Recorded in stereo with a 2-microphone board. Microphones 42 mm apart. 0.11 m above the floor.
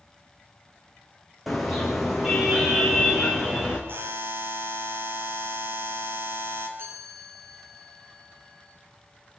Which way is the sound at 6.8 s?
80° right.